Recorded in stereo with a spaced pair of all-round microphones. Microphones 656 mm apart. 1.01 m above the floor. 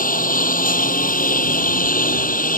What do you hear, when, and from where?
0.0 s a lawn mower: 10° left (ahead or behind)